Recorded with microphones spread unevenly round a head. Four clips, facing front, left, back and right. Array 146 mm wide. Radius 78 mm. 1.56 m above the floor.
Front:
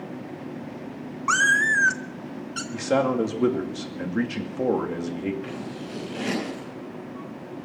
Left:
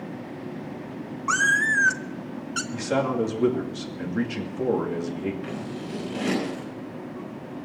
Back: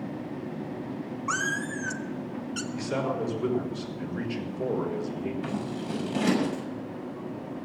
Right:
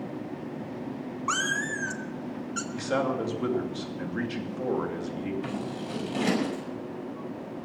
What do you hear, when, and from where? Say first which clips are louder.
1.3 s a cat meowing: left 7 dB, front 10 dB; 40° right, 0.9 m; by 2.6 s 105° left, 1.0 m
2.7 s a man speaking: left 3 dB, front 8 dB; 5° left, 2.5 m
5.4 s scissors: even, back 2 dB; 135° right, 7 m